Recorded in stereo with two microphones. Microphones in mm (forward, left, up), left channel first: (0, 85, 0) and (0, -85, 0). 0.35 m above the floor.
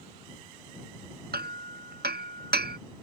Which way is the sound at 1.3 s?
75° right (ahead or behind).